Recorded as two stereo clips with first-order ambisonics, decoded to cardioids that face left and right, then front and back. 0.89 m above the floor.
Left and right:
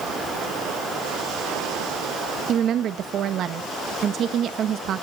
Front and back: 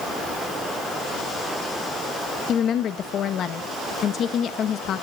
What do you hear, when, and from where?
2.5 s a woman speaking: 45° right, 0.8 m